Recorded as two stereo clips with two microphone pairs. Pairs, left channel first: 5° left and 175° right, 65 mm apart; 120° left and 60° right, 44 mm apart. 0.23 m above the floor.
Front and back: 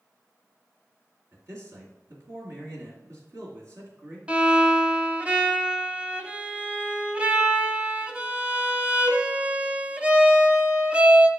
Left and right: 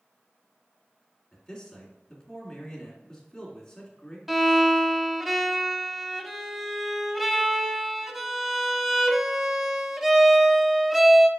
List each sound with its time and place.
1.3 s a man speaking: 160° right, 3 m
4.3 s a violin: 135° right, 0.8 m